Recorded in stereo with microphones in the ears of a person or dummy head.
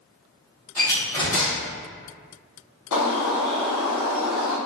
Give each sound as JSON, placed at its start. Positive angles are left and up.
{"t": 0.8, "sound": "a door slam", "side_deg": 15, "distance_m": 1.2}
{"t": 2.9, "sound": "a bird", "side_deg": 80, "distance_m": 0.9}